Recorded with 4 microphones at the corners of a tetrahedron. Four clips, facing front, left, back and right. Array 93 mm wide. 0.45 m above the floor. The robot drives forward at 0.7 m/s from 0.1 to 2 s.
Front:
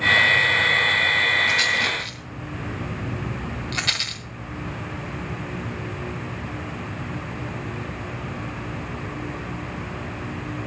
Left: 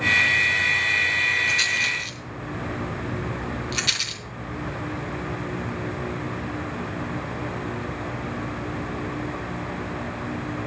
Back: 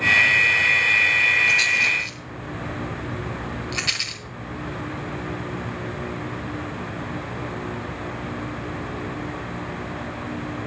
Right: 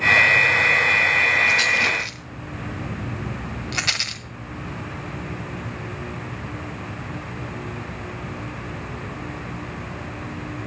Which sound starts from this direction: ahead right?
A rattle, at 1.5 s.